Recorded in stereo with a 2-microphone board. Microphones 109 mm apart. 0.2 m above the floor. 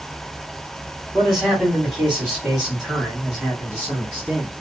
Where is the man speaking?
5° right (ahead or behind), 1.6 m; by 4.5 s 10° right (ahead or behind), 2 m.